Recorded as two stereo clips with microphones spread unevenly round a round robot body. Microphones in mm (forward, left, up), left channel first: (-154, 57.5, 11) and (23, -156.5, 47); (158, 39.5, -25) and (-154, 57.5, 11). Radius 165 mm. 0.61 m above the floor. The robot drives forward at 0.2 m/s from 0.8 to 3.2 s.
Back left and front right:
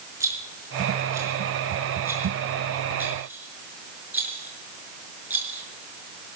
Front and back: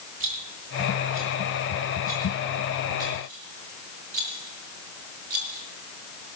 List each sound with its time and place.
0.2 s a rattle: 130° right, 5.5 m; by 5.6 s 135° right, 6 m